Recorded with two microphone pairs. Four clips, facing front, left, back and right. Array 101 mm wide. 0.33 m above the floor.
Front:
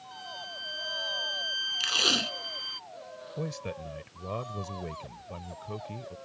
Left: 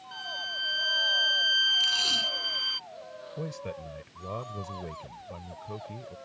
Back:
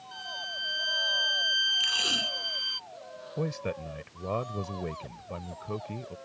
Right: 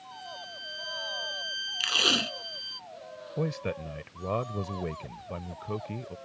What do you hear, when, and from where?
0.1 s a violin: 80° left
1.8 s tape being pulled: 55° right
3.4 s a man speaking: 130° right